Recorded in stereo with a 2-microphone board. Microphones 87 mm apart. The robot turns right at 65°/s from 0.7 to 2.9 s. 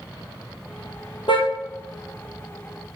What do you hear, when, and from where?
1.3 s a car horn: 65° left (ahead or behind), 4 m; by 1.5 s 80° left, 4 m